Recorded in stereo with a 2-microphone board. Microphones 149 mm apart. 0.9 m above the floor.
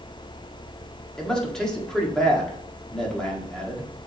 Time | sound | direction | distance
1.2 | a man speaking | 5° left (ahead or behind) | 1.8 m